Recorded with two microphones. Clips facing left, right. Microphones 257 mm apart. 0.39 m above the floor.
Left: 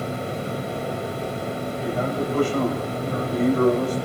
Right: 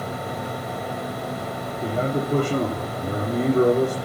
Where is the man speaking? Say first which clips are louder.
Right 2 dB; 45° right (ahead or behind), 9 m.